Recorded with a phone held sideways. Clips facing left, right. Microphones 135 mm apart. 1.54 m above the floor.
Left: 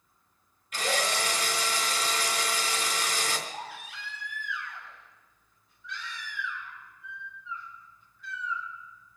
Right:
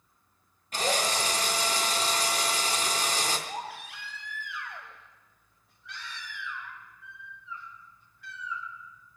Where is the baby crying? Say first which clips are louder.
Right 3 dB; 75° right (ahead or behind), 7 m.